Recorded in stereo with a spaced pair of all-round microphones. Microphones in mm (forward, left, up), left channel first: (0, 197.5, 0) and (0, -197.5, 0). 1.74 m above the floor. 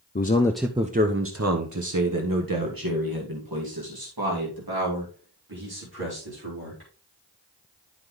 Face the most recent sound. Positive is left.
turn(degrees=-70)  # may be behind; listen again after turning